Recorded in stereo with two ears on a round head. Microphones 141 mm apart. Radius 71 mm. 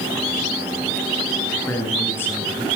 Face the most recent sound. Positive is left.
turn(degrees=15)  # may be behind; listen again after turning